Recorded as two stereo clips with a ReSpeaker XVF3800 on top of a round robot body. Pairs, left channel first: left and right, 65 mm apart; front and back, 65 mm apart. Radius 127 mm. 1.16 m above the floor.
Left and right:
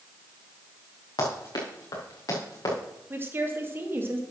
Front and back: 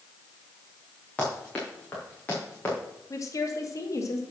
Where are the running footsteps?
75° left, 5 m; by 2.8 s 65° left, 5 m.